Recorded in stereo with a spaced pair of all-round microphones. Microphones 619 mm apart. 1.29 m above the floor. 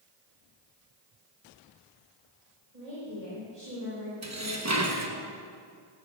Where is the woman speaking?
85° right, 3.5 m.